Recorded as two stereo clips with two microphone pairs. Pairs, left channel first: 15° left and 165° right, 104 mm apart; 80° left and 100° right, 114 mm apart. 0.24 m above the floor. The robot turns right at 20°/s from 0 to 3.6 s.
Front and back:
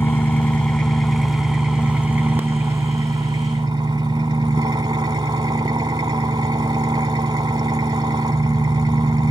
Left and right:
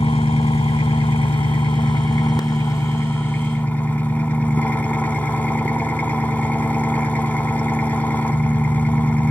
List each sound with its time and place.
0.0 s an engine running: 80° left, 0.9 m; by 9.3 s 150° left, 0.9 m